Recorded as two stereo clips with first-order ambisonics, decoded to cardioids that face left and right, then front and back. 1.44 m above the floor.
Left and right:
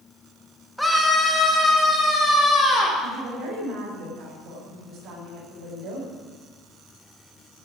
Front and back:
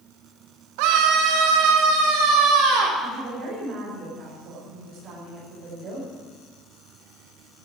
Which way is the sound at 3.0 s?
130° right.